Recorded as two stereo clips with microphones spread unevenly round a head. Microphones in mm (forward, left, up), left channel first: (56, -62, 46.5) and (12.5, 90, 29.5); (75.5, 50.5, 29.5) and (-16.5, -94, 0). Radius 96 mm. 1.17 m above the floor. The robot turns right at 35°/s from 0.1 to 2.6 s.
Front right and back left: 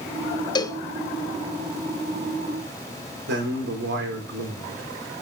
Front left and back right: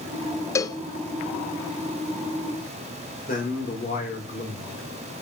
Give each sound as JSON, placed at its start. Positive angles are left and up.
{"t": 0.6, "sound": "a cowbell", "azimuth_deg": -15, "distance_m": 0.6}
{"t": 3.3, "sound": "a man speaking", "azimuth_deg": 110, "distance_m": 3.5}